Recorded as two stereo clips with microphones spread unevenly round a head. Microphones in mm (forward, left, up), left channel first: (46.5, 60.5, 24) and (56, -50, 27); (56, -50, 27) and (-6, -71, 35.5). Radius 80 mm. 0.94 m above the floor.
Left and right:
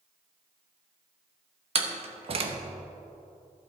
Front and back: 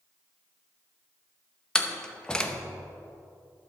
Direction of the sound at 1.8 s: 55° right.